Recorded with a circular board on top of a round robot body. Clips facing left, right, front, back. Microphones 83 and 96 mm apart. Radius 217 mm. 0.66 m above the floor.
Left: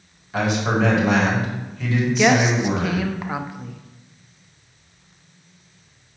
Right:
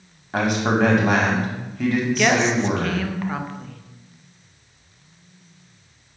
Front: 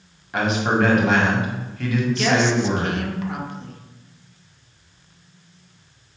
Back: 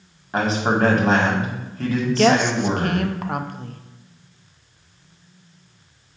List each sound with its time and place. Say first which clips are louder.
0.3 s a man speaking: right 1 dB, even; 125° right, 2 m
2.1 s a woman speaking: left 4 dB, back 3 dB; 165° left, 0.9 m